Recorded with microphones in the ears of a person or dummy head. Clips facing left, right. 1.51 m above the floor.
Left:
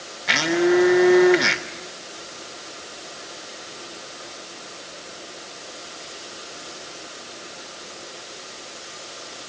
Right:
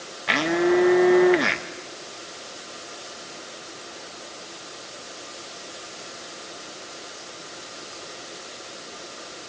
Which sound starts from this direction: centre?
A blender, at 0.3 s.